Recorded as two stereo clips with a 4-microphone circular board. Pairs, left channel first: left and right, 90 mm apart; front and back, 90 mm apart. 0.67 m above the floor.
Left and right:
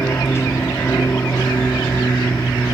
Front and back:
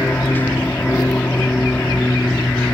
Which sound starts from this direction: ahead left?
An aircraft, at 0.0 s.